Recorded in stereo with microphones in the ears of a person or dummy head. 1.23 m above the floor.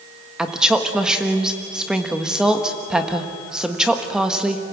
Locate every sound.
0.4 s a woman speaking: centre (ahead or behind), 1.3 m